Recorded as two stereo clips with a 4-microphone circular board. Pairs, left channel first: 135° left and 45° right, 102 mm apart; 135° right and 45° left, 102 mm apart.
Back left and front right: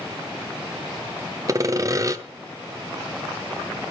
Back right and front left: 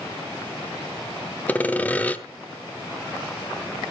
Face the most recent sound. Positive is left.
turn(degrees=-70)